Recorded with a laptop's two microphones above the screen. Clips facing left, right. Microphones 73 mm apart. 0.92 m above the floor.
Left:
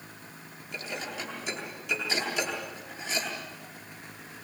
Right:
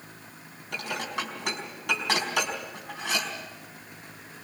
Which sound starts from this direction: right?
Dishes clattering, at 0.7 s.